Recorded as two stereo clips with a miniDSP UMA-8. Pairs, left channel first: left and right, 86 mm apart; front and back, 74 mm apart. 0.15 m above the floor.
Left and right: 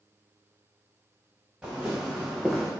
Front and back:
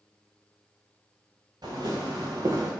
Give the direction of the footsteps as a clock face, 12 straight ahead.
6 o'clock.